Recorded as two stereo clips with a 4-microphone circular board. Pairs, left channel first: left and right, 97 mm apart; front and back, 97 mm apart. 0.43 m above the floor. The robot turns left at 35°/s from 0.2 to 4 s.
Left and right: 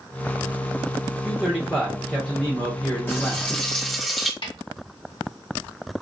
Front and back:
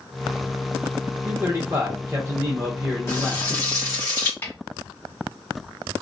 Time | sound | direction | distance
1.2 | a man speaking | 150° right | 0.8 m
3.1 | frying | 35° left | 1.3 m
4.4 | a snare drum | 65° left | 1.0 m